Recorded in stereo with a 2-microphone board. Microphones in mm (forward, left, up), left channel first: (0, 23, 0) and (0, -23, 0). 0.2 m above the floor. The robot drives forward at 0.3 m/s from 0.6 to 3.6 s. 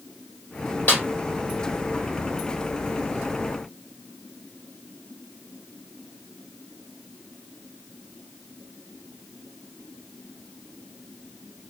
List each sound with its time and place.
0.9 s a snare drum: 35° left (ahead or behind), 2.5 m